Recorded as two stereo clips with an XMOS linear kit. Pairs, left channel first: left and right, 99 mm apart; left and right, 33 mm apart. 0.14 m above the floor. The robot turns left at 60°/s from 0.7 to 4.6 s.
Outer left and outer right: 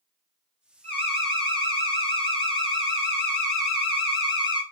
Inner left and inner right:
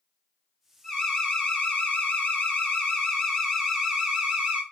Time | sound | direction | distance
0.8 | an alarm | 165° left | 3.5 m